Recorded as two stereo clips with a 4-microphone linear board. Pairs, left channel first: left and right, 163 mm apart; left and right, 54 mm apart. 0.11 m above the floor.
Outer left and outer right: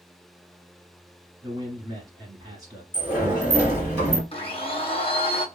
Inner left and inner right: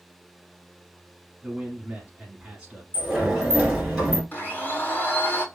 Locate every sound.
1.4 s a man speaking: 25° right (ahead or behind), 1.5 m
2.9 s a sliding door: 15° right (ahead or behind), 1.6 m
4.3 s a blender: 35° left (ahead or behind), 0.7 m